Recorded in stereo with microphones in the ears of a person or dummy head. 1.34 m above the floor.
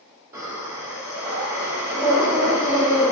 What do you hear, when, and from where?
0.3 s breathing: 15° right (ahead or behind), 1.1 m